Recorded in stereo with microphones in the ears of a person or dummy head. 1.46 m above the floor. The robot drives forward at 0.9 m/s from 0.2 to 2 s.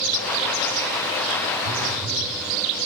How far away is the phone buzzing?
About 0.6 m.